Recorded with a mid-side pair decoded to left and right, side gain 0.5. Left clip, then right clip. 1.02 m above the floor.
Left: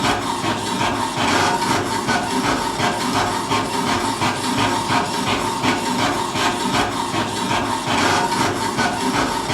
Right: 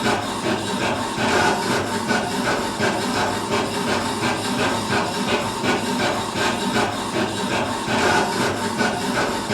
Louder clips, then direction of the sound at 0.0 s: Left 2 dB; 70° left.